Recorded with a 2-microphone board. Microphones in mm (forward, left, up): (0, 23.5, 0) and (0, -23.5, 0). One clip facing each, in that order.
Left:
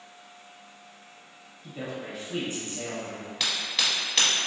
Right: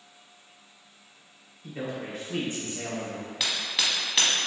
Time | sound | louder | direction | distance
1.6 | a man speaking | right 2 dB | 35° right (ahead or behind) | 1.8 m
3.4 | hammering | left 1 dB | 5° right (ahead or behind) | 0.9 m